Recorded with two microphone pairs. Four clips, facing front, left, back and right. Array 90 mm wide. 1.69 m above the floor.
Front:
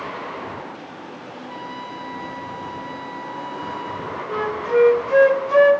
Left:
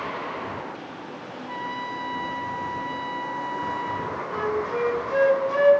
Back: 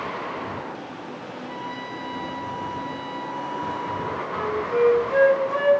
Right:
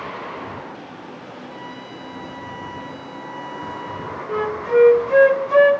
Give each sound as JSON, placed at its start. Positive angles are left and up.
{"t": 1.5, "sound": "a trumpet", "azimuth_deg": 75, "distance_m": 1.7}
{"t": 4.3, "sound": "a flute", "azimuth_deg": -50, "distance_m": 0.5}